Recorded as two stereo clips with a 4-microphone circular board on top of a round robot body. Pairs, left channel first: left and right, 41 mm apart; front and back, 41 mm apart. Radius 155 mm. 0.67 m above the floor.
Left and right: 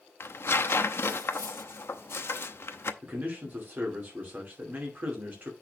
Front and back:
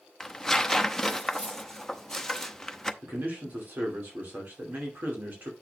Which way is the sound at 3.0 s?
135° right.